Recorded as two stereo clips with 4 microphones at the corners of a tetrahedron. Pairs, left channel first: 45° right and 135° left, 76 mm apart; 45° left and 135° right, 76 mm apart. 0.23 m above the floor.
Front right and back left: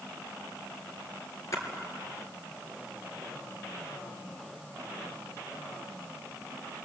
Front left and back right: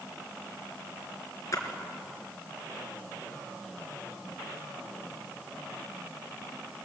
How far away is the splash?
About 3.5 m.